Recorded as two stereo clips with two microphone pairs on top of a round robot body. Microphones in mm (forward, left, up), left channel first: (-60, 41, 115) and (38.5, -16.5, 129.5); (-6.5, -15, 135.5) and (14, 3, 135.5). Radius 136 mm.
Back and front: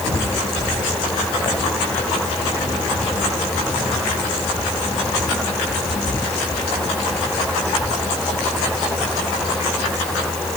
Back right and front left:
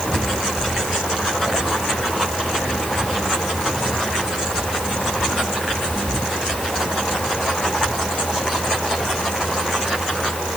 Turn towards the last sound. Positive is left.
No sound to turn to.